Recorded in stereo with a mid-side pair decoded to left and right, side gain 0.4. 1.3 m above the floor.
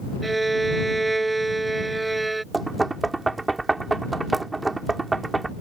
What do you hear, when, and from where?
0.2 s a violin: 20° right
2.5 s knocking: 25° right